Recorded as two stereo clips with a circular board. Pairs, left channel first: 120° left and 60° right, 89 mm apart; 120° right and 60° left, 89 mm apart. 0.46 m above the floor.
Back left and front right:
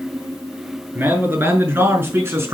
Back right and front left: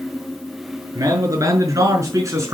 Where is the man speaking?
10° left, 6 m; by 2.5 s 5° left, 4.5 m.